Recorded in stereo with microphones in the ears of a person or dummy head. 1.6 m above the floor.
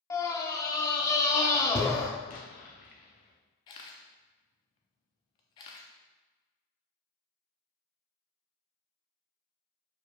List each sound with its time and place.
0.1 s a scream: 20° left (ahead or behind), 0.6 m
2.3 s an explosion: 35° left (ahead or behind), 0.5 m
3.7 s a camera shutter: 25° left (ahead or behind), 0.5 m